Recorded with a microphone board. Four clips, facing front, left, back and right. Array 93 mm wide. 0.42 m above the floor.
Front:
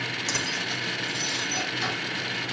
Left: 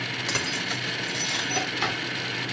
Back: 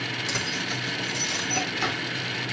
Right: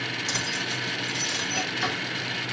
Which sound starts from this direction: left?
Keys jangling, at 0.3 s.